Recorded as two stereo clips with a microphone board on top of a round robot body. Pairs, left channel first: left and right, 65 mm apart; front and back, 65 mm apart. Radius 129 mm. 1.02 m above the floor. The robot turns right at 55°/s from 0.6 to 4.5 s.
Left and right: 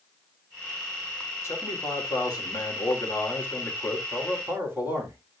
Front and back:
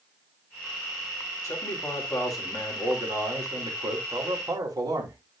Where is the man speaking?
40° left, 3 m; by 5.2 s 150° right, 3 m.